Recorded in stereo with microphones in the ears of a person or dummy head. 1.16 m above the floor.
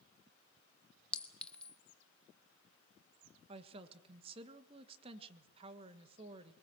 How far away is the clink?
About 0.7 m.